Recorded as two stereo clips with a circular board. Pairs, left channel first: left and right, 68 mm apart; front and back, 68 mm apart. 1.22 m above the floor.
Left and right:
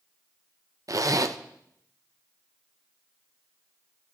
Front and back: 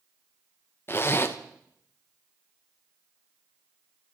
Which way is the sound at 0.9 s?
55° right.